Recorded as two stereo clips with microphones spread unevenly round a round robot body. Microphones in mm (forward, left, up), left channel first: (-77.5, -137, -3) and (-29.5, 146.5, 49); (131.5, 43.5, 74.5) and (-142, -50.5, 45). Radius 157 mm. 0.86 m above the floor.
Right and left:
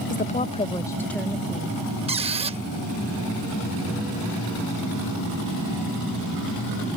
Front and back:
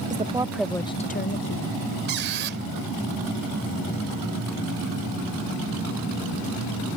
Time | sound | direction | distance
0.1 | a woman speaking | 125° right | ?
2.1 | a squeak | 145° left | ?